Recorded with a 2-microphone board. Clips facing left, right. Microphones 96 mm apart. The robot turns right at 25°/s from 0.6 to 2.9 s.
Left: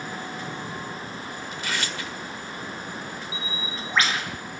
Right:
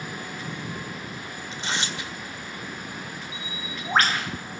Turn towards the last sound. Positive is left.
turn(degrees=-50)  # may be behind; listen again after turning